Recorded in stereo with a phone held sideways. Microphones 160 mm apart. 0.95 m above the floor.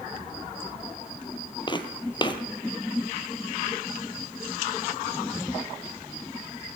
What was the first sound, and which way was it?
Footsteps, 30° left (ahead or behind).